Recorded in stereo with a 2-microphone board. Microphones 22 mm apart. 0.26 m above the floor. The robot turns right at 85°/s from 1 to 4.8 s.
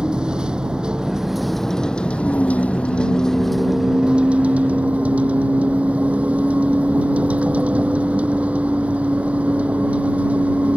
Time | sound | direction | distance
0.0 | a vehicle | 35° right | ?